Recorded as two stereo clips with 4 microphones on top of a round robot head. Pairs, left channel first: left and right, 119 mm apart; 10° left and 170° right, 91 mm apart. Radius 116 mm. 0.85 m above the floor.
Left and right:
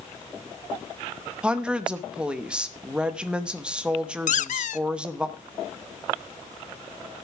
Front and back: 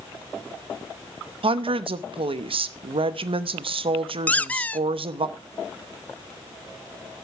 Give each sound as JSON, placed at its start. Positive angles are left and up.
{"t": 1.4, "sound": "a woman speaking", "azimuth_deg": -170, "distance_m": 1.0}
{"t": 4.3, "sound": "a squeak", "azimuth_deg": 85, "distance_m": 0.6}